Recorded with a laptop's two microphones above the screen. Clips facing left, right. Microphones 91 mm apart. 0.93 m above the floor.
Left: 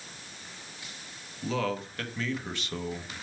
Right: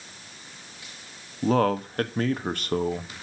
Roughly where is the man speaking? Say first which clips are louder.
Right 9 dB; right.